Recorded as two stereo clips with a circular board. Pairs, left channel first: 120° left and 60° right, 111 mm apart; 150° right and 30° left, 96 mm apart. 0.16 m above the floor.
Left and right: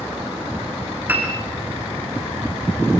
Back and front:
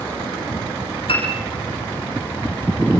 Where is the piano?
135° right, 6.5 m.